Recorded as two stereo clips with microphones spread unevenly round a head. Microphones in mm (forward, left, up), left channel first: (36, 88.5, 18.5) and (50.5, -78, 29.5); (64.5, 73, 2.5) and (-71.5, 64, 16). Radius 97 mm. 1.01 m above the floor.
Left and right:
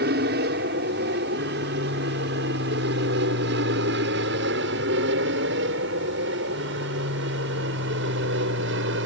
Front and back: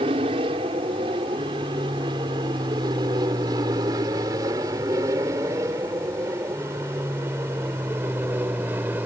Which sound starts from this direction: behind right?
An aircraft, at 0.0 s.